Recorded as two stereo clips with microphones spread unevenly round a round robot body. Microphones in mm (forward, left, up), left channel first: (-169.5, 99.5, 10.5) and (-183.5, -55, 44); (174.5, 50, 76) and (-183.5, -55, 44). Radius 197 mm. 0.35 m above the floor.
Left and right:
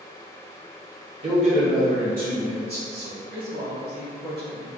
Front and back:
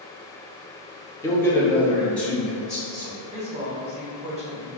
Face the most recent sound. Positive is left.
turn(degrees=-95)